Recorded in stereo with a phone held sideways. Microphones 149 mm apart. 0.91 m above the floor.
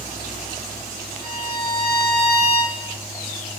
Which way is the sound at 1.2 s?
75° left (ahead or behind).